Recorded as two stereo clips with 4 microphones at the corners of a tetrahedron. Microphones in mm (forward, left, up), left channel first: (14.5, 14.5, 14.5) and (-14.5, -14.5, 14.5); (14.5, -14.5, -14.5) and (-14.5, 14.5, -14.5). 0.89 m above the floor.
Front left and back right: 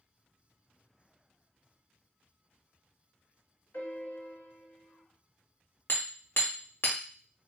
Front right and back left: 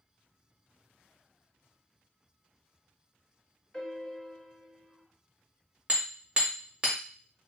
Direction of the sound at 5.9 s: 75° left.